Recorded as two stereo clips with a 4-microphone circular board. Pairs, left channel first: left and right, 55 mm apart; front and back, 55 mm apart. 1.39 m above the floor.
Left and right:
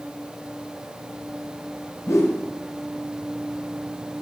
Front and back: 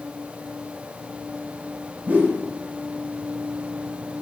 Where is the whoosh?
120° left, 0.9 m.